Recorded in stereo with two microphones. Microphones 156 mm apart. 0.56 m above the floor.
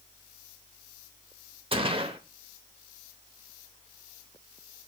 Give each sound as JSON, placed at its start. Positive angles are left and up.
{"t": 1.7, "sound": "a gunshot", "side_deg": -35, "distance_m": 1.1}